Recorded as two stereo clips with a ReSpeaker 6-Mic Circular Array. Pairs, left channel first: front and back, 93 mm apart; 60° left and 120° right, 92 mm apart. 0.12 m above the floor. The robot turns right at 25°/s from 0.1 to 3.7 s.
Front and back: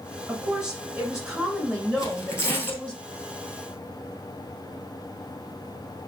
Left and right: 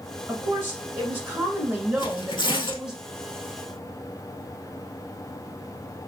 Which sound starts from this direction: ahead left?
Tearing paper, at 2.0 s.